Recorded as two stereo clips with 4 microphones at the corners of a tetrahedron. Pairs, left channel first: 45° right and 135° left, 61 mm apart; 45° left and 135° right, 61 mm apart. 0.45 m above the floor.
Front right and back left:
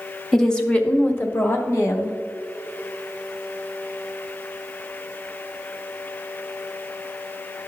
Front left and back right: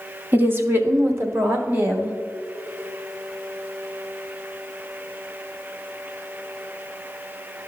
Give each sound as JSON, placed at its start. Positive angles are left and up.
{"t": 0.3, "sound": "a woman speaking", "azimuth_deg": -130, "distance_m": 0.8}